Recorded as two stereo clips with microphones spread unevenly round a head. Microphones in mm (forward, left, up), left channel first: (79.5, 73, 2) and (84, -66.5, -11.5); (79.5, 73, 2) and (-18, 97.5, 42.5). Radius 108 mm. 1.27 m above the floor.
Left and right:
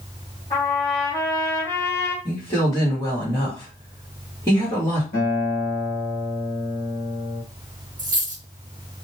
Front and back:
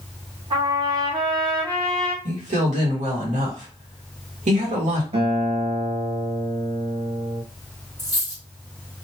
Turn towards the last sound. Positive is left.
turn(degrees=-150)